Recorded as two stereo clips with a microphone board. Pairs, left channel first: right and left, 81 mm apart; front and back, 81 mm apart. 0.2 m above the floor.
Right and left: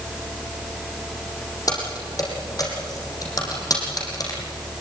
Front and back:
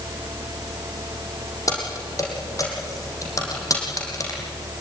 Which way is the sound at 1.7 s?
50° right.